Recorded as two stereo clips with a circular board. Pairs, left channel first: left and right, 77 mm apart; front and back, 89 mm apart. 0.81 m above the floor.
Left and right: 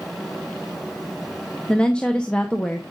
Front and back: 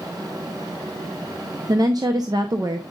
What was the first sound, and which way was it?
A woman speaking, 160° left.